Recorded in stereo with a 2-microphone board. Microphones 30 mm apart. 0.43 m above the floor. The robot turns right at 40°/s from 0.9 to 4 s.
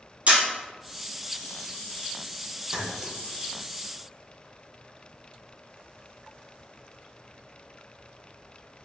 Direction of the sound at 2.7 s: 30° right (ahead or behind).